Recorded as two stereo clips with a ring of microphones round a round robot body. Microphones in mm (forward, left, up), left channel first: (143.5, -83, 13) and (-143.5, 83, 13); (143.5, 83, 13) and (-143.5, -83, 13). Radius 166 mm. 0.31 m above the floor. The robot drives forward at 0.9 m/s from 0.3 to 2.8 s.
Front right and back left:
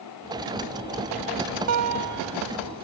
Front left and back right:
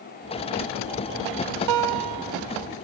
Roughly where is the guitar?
Behind.